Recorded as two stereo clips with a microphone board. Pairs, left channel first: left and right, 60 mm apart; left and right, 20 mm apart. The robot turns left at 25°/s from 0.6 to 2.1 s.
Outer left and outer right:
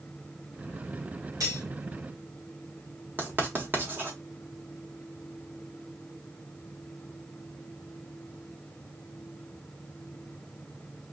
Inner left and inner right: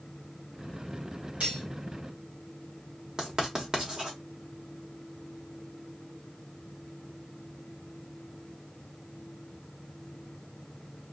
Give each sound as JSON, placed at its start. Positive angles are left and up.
{"t": 1.4, "sound": "cutlery clinking", "side_deg": -75, "distance_m": 2.0}
{"t": 3.2, "sound": "writing", "side_deg": -35, "distance_m": 1.5}